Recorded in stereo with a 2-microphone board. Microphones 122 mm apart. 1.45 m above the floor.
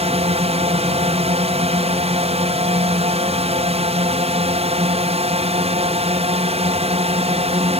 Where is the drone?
55° right (ahead or behind).